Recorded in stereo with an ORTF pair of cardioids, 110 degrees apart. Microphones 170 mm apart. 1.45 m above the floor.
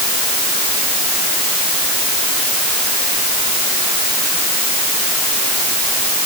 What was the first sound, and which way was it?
Only background noise.